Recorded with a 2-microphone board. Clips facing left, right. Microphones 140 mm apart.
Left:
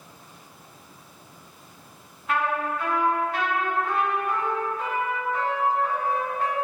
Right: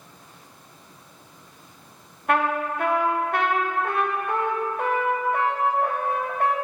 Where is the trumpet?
60° right (ahead or behind), 1.2 m.